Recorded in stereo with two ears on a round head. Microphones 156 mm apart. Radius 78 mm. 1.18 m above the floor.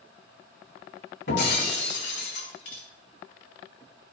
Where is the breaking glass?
70° left (ahead or behind), 4 m.